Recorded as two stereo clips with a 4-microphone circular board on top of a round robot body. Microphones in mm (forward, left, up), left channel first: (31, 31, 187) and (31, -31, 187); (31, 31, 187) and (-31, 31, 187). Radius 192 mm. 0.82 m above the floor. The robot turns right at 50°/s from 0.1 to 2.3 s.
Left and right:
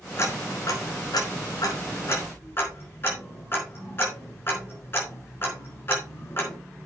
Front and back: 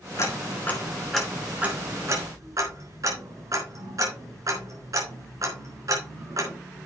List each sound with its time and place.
0.2 s ticking: 40° left, 4 m; by 6.5 s 145° left, 4 m